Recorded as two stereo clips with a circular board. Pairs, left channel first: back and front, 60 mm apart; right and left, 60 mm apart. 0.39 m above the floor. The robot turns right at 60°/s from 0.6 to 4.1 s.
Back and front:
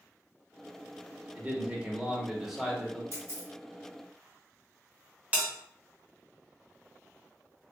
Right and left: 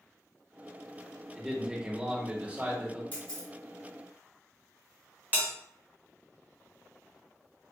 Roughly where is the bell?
Ahead left.